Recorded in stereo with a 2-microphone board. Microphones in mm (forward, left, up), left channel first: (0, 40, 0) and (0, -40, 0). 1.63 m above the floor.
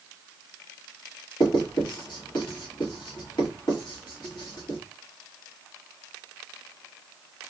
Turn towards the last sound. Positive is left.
turn(degrees=65)  # may be behind; listen again after turning